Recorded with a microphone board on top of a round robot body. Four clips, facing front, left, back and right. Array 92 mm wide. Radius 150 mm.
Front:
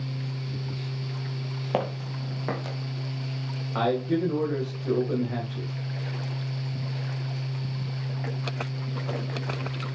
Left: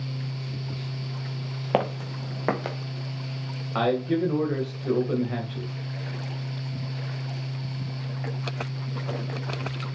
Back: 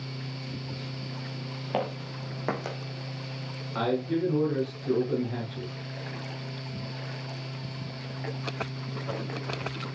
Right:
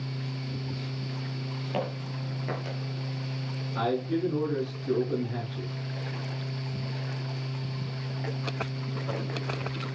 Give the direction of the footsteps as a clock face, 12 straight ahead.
9 o'clock.